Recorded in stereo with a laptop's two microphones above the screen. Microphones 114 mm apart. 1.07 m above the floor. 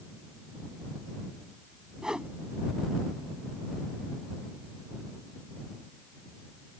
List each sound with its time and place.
2.0 s a whoosh: 5° right (ahead or behind)